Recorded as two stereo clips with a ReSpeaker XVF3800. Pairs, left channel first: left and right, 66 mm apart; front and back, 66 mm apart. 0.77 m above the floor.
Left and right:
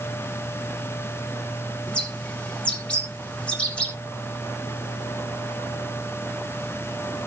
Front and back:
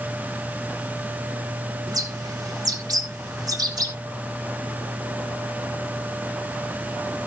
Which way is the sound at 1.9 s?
165° left.